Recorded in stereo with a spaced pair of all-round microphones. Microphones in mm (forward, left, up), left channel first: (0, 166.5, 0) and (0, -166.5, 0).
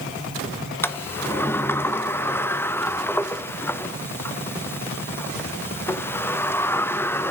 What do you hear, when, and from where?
0.8 s a sliding door: 5° left (ahead or behind), 0.7 m